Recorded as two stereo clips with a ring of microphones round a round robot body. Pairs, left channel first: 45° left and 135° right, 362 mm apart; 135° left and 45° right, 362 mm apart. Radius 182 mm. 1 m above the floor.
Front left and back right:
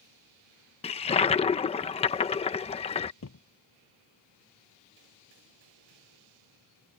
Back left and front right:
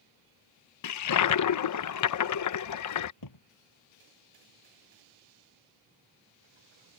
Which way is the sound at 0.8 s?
115° left.